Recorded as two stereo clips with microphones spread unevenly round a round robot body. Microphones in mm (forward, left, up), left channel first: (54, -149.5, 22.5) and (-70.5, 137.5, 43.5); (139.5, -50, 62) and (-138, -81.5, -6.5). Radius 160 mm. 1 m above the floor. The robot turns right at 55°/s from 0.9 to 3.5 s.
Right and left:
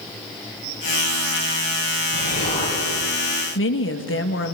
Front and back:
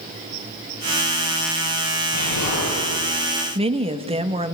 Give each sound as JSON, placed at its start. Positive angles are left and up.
{"t": 2.1, "sound": "an explosion", "azimuth_deg": -25, "distance_m": 9.5}
{"t": 3.5, "sound": "a woman speaking", "azimuth_deg": -110, "distance_m": 1.7}